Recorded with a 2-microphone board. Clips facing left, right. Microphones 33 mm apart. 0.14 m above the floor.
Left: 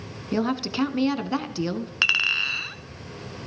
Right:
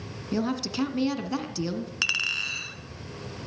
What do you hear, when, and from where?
0.3 s a woman speaking: 20° left (ahead or behind), 1.1 m
2.0 s a clink: 25° left (ahead or behind), 0.8 m